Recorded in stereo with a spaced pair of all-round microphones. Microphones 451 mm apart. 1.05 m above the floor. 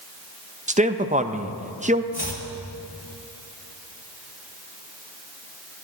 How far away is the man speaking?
About 0.6 m.